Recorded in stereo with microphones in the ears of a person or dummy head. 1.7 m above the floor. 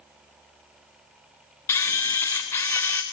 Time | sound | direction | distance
1.7 | a camera shutter | 10° left (ahead or behind) | 0.7 m